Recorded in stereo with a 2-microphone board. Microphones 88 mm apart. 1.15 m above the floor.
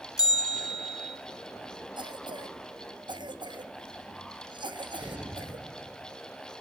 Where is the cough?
60° right (ahead or behind), 1.2 m.